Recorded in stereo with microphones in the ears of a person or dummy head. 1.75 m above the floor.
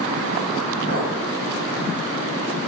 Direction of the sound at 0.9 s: 35° right (ahead or behind).